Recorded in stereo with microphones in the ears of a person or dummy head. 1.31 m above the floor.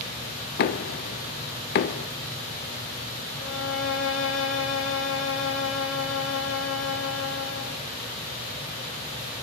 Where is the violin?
70° left (ahead or behind), 1.6 m.